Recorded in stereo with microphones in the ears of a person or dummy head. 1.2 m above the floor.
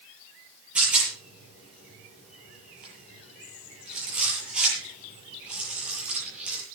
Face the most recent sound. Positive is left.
turn(degrees=-5)  # may be behind; listen again after turning